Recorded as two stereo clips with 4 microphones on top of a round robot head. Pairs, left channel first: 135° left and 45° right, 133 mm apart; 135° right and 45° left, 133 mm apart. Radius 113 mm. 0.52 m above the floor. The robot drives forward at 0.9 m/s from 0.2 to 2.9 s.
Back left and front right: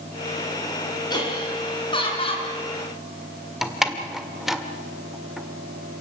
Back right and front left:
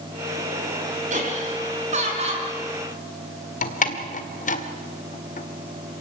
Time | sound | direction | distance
1.1 | laughter | 75° left | 6.5 m
3.6 | a door slam | 135° right | 1.8 m